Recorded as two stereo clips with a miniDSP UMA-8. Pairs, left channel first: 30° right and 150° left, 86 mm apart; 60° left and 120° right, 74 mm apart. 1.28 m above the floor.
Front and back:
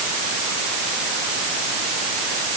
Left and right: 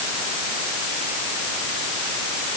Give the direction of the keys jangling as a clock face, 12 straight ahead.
No keys jangling in this recording.